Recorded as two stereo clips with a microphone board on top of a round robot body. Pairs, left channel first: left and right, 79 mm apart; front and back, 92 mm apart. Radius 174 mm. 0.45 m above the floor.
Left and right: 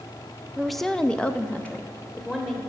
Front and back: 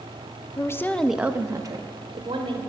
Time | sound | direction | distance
0.6 | a woman speaking | straight ahead | 0.9 m